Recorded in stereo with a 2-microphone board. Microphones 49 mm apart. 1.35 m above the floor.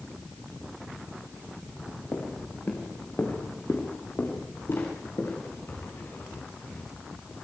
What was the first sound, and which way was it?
Footsteps, 45° left (ahead or behind).